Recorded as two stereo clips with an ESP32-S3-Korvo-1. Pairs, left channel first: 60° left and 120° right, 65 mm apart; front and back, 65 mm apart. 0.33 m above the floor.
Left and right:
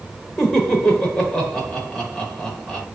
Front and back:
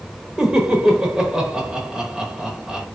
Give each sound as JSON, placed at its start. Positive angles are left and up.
{"t": 0.4, "sound": "laughter", "azimuth_deg": 130, "distance_m": 1.0}